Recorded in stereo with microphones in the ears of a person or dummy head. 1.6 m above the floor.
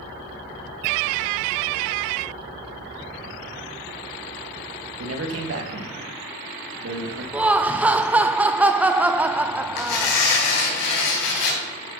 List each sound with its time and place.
5.0 s a man speaking: 85° right, 3 m; by 7.2 s 60° right (ahead or behind), 3 m
7.3 s laughter: 10° right (ahead or behind), 0.9 m
9.8 s tearing paper: 60° left (ahead or behind), 4 m